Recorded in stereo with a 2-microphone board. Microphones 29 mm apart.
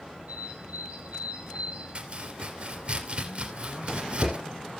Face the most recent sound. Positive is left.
turn(degrees=-45)  # may be behind; listen again after turning